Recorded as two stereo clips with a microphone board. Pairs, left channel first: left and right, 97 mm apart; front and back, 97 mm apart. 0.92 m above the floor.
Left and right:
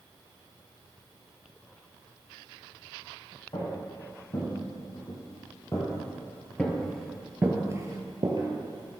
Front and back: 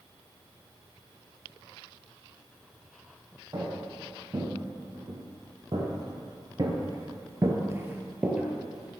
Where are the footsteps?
125° left, 3 m; by 9.0 s 95° right, 1.6 m.